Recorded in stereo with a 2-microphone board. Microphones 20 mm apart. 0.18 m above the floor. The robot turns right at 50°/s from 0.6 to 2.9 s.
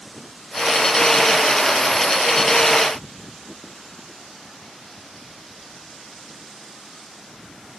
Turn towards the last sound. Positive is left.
No sound to turn to.